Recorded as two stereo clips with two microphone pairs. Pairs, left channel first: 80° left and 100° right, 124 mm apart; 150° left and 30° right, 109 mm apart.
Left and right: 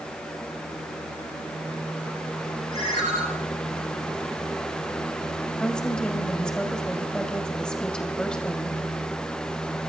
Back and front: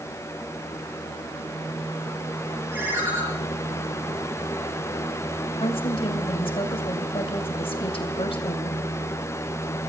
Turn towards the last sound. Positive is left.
turn(degrees=160)